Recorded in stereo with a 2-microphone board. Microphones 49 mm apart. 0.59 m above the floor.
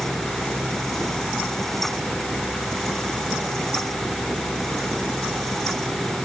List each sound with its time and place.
Only background noise.